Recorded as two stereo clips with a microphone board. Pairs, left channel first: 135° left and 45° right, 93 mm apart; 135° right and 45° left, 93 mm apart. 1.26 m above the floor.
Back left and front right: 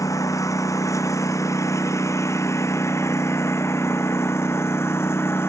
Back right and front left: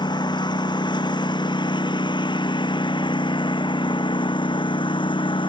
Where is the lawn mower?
170° right; by 5.5 s 160° right.